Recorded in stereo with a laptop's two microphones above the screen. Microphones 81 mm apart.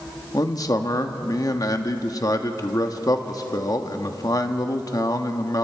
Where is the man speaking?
45° left (ahead or behind), 1.1 m.